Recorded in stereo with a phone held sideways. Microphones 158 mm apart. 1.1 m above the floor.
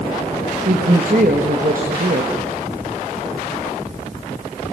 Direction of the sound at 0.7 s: 60° right (ahead or behind).